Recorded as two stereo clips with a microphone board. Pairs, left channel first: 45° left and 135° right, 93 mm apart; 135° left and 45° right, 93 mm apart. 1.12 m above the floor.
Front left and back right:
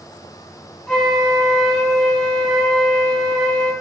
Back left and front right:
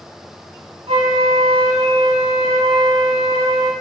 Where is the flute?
35° right, 4.5 m.